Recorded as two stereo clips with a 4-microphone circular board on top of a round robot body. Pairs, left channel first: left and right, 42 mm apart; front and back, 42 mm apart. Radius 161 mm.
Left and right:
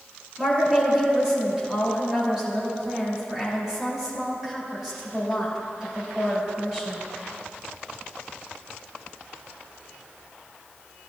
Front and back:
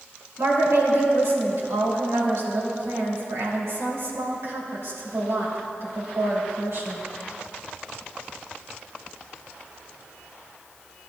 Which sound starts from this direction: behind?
A woman speaking, at 0.4 s.